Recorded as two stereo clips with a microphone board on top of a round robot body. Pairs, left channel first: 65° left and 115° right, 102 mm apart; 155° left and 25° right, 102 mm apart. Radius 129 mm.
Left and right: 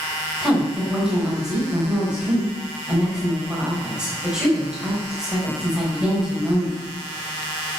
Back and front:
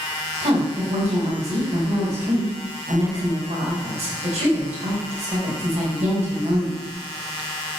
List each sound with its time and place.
0.4 s a woman speaking: 30° right, 4 m